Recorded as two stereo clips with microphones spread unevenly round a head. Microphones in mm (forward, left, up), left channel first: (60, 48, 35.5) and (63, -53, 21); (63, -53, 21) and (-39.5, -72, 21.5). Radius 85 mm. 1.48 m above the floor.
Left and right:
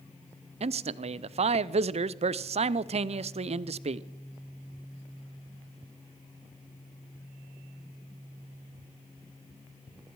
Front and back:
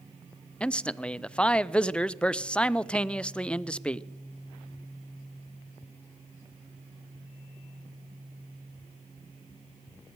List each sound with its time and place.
0.6 s a man speaking: 70° right, 0.6 m